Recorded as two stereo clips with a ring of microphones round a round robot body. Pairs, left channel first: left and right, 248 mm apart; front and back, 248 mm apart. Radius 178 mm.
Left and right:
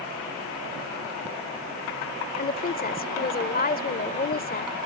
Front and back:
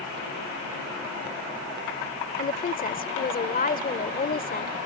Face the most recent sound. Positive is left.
turn(degrees=45)